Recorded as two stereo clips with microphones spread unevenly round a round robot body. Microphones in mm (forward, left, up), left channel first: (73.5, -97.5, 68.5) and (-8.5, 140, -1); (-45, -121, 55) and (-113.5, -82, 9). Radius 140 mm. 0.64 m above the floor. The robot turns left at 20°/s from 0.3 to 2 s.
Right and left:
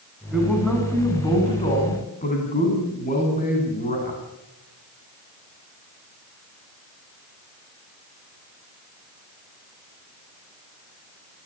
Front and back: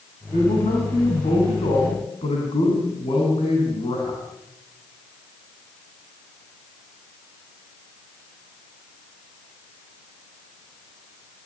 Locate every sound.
0.3 s a man speaking: 25° left, 7.5 m; by 4.2 s 10° right, 7.5 m